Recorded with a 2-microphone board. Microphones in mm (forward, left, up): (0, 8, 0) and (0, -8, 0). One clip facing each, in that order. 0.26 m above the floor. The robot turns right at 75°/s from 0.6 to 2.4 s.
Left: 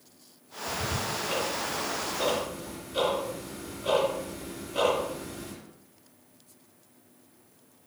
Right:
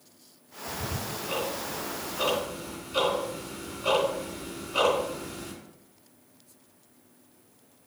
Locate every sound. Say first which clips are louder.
0.7 s ticking: left 3 dB; 45° left (ahead or behind), 3 m; by 5.5 s 60° right (ahead or behind), 3 m